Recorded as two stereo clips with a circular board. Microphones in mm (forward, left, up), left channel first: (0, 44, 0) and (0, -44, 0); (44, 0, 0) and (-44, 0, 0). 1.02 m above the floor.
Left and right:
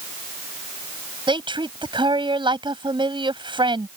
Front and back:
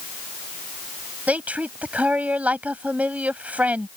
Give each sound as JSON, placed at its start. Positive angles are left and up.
{"t": 1.3, "sound": "a woman speaking", "azimuth_deg": -105}